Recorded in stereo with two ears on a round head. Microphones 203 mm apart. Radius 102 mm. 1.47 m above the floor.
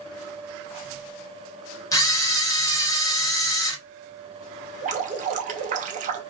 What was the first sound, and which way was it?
A camera shutter, 15° left (ahead or behind).